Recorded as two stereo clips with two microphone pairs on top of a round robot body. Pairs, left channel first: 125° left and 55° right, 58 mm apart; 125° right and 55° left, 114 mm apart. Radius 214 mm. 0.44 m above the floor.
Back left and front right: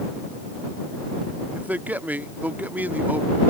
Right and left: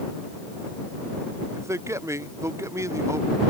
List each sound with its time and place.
1.5 s a man speaking: straight ahead